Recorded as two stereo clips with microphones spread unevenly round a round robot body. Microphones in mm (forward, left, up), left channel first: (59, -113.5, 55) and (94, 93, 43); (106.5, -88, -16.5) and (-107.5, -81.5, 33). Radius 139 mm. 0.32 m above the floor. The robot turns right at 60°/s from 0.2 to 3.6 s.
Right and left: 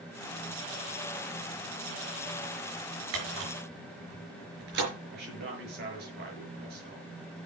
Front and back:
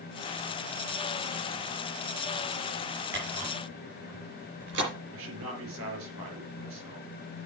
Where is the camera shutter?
95° left, 5 m; by 4.9 s 125° left, 5 m.